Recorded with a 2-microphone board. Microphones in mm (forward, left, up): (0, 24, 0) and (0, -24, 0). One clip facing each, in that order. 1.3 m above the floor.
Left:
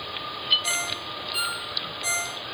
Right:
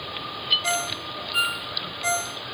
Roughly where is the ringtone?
Right.